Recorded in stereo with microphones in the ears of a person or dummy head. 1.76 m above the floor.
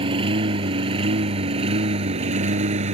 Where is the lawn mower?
25° right (ahead or behind); by 3.0 s 35° right (ahead or behind).